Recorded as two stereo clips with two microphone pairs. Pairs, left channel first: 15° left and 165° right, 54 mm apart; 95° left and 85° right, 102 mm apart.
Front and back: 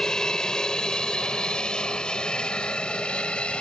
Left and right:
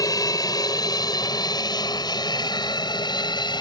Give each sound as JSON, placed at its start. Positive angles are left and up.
{"t": 0.0, "sound": "an aircraft", "azimuth_deg": 85}